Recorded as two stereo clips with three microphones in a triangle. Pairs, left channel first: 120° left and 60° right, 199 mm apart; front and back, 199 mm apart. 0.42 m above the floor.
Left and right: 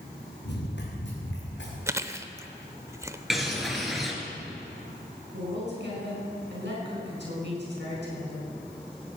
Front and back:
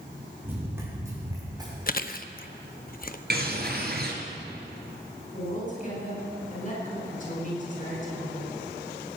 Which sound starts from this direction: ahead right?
A woman speaking, at 5.3 s.